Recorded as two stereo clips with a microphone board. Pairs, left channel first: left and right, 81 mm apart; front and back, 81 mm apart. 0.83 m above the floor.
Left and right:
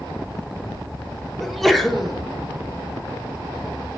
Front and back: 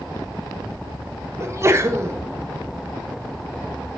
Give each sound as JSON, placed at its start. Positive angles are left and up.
{"t": 1.4, "sound": "a sneeze", "azimuth_deg": 180, "distance_m": 0.7}